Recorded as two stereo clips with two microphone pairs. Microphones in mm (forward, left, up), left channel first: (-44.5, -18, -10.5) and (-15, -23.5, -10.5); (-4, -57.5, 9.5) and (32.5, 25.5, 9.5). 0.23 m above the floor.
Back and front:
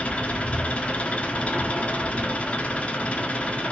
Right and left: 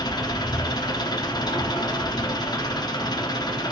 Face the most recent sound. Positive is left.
turn(degrees=-150)